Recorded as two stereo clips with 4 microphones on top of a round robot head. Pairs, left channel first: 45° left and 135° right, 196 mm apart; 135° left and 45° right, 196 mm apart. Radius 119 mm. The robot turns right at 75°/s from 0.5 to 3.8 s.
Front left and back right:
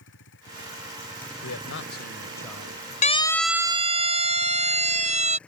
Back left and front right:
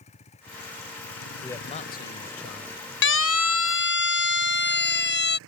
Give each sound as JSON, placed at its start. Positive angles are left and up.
{"t": 0.0, "sound": "a vehicle", "azimuth_deg": 75}
{"t": 1.4, "sound": "a man speaking", "azimuth_deg": 50}
{"t": 3.0, "sound": "a siren", "azimuth_deg": 100}